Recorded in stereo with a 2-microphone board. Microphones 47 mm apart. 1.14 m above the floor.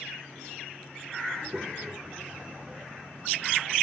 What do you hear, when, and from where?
1.3 s a child speaking: 15° right (ahead or behind); by 3.7 s 30° right (ahead or behind)